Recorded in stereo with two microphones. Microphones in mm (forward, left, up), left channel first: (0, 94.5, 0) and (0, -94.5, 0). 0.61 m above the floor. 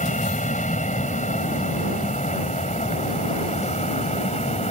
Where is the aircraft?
40° left (ahead or behind); by 4.7 s 35° left (ahead or behind).